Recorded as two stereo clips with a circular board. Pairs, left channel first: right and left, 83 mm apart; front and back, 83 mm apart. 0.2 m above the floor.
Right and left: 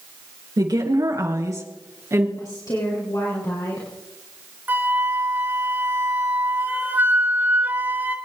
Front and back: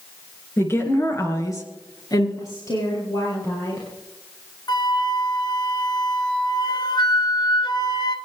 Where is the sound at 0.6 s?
60° left, 3.5 m; by 2.3 s 35° left, 4 m.